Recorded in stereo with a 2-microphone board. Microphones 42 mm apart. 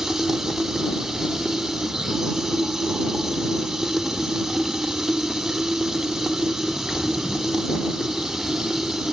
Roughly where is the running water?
Centre.